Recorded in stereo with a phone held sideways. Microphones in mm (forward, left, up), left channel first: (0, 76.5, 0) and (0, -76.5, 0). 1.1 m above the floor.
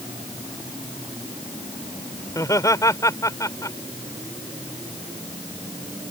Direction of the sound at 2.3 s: 20° left (ahead or behind).